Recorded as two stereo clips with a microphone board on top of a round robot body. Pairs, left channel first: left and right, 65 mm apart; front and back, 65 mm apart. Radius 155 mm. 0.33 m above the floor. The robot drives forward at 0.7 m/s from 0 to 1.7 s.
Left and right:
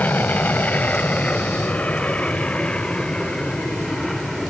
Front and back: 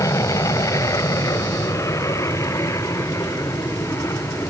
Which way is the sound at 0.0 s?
30° left.